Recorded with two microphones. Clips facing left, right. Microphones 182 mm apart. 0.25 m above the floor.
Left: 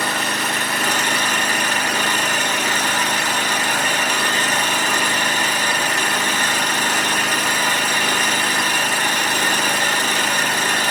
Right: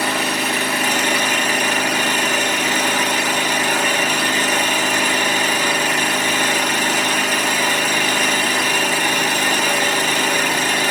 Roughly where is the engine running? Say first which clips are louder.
Right 3 dB; centre.